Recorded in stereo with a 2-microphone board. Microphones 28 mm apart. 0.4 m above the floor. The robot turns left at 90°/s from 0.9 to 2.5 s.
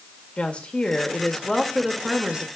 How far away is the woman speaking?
About 0.9 m.